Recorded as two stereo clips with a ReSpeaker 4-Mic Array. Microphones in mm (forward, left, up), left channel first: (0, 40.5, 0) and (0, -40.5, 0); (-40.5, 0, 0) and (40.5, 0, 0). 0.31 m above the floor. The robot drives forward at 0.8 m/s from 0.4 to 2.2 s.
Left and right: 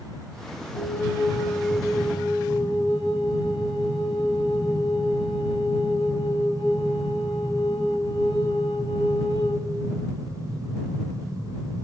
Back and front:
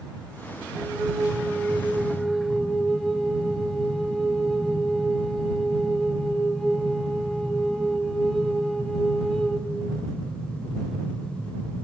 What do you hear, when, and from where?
0.8 s a flute: 55° left, 2.0 m; by 9.7 s 95° left, 1.6 m